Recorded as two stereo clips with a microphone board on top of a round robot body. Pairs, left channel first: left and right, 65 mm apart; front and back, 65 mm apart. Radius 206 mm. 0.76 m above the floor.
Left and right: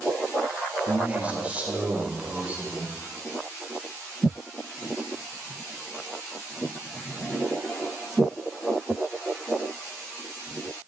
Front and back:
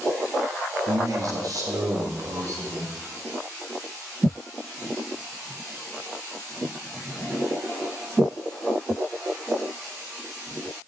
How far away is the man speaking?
About 2 m.